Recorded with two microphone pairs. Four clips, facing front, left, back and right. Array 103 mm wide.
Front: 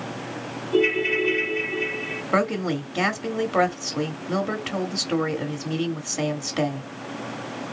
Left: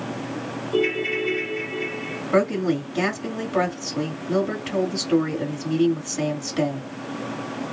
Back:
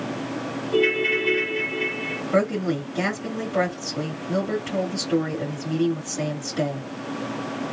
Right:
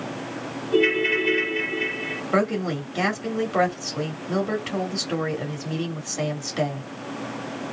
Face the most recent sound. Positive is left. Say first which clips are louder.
# left 3 dB, back 1 dB
turn(degrees=-10)